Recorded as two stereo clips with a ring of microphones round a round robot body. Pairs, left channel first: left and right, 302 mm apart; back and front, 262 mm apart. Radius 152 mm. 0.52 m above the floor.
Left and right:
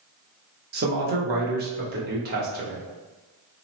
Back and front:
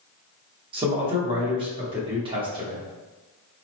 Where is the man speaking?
60° right, 0.8 m.